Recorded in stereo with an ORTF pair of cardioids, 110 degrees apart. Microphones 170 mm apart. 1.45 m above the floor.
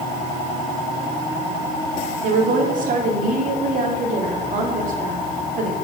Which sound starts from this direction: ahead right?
A woman speaking, at 2.2 s.